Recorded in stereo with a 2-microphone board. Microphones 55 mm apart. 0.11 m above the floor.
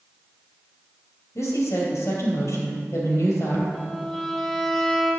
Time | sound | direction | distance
1.4 | a woman speaking | 60° left (ahead or behind) | 3 m
3.7 | a violin | 10° left (ahead or behind) | 0.9 m